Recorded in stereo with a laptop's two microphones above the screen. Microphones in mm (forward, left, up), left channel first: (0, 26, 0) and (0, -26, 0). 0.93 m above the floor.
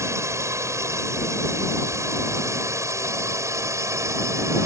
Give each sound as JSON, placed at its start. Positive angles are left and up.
{"t": 0.0, "sound": "a drone", "side_deg": -65}